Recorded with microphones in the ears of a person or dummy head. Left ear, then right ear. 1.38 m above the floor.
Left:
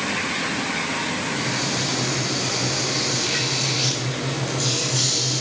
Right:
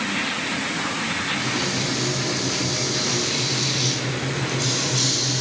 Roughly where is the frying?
Centre.